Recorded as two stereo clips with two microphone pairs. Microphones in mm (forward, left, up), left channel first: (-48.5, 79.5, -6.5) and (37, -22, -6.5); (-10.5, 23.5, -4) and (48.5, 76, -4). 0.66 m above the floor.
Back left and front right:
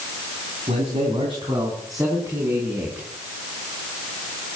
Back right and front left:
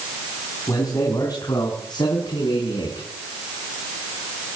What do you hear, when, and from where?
0.7 s a man speaking: 85° right, 4 m; by 3.1 s 130° right, 5.5 m